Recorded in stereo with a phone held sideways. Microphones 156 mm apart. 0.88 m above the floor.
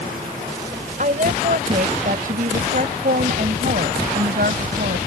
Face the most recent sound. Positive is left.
turn(degrees=-65)  # may be behind; listen again after turning